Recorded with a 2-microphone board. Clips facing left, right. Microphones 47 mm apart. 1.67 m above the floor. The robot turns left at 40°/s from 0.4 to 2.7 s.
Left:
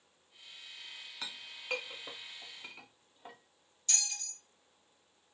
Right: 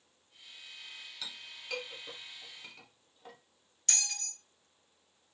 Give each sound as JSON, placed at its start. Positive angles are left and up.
{"t": 1.2, "sound": "a clink", "side_deg": 35, "distance_m": 0.6}
{"t": 3.9, "sound": "a bell", "side_deg": -65, "distance_m": 0.8}